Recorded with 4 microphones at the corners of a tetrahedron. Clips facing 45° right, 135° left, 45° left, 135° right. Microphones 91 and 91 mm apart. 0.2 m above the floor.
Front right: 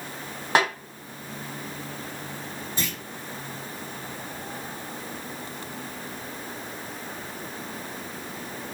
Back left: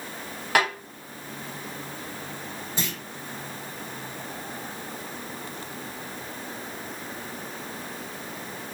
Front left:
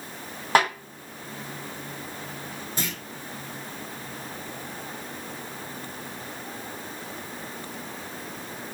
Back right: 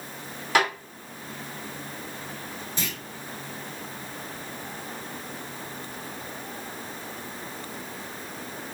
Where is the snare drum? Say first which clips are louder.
Front right 1 dB, front left 2 dB; 10° left, 1.7 m.